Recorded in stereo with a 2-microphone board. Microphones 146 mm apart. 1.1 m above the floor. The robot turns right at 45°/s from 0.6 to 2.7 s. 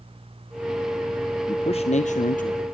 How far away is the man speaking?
About 0.8 m.